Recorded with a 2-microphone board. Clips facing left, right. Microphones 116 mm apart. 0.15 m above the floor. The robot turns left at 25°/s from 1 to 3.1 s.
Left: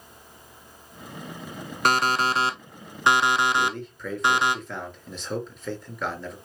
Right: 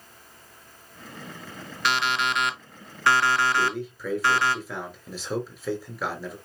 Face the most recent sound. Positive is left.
turn(degrees=-5)  # may be behind; listen again after turning